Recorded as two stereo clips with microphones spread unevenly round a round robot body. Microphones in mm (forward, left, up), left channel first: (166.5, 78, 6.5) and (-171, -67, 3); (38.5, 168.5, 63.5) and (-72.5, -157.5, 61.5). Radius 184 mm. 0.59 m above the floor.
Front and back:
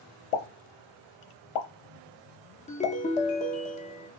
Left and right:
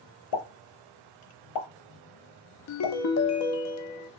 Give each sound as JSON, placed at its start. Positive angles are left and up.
{"t": 0.3, "sound": "a pop", "azimuth_deg": 45, "distance_m": 0.9}
{"t": 2.7, "sound": "a ringtone", "azimuth_deg": 90, "distance_m": 0.5}